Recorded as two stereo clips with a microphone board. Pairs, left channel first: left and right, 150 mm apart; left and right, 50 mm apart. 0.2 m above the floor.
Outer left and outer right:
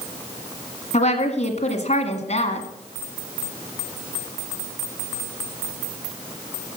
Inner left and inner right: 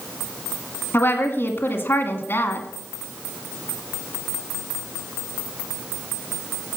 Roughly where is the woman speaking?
Left.